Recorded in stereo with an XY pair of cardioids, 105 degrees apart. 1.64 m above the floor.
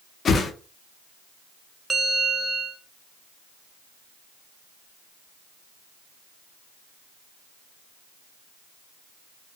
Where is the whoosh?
50° left, 0.5 m.